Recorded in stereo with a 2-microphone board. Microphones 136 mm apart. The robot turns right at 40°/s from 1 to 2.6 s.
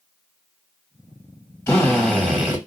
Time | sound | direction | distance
1.7 | a drill | 155° left | 1.7 m